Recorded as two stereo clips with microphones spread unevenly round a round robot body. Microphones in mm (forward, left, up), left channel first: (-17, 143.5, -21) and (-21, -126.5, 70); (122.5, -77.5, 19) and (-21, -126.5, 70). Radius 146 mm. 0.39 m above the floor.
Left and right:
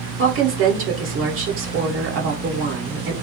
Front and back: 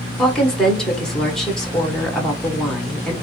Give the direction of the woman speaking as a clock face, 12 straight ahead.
1 o'clock.